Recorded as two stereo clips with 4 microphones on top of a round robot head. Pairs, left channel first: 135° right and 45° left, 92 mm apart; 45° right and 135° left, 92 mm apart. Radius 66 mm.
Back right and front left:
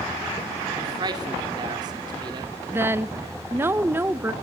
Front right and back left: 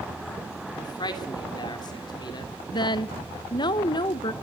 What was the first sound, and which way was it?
A man speaking, straight ahead.